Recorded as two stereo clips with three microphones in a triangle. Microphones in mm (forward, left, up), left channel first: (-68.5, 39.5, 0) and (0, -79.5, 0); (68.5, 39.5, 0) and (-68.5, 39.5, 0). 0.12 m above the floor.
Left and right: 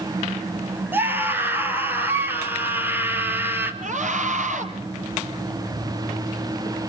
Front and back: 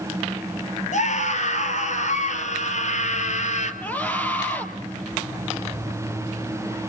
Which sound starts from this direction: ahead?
A scream, at 0.9 s.